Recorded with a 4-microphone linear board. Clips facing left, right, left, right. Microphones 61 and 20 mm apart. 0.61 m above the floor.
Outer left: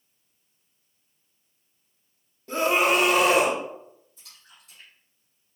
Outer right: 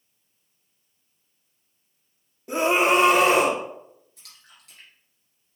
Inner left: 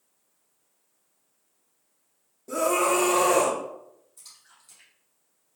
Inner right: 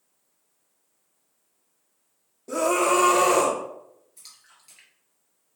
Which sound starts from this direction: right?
A splash, at 4.2 s.